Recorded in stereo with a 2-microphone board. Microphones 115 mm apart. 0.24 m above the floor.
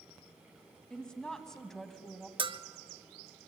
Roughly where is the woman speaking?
Centre.